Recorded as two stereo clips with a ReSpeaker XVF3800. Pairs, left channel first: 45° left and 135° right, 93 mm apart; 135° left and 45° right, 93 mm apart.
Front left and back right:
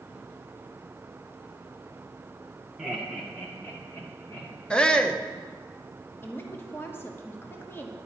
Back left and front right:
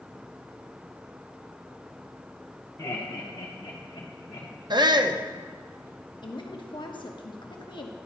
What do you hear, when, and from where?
2.8 s laughter: 150° left, 0.8 m; by 4.5 s 105° left, 1.9 m
4.7 s a shout: 35° right, 0.6 m
6.2 s a woman speaking: 110° left, 0.9 m